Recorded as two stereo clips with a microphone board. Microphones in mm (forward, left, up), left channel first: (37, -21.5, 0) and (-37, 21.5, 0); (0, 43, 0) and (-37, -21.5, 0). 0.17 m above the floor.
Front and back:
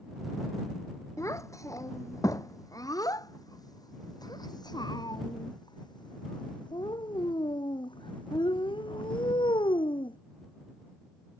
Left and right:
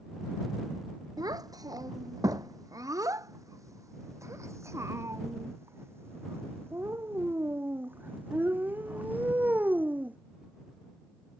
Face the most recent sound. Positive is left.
turn(degrees=-50)